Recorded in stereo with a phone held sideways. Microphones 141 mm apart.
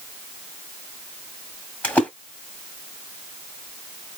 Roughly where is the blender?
No blender in this recording.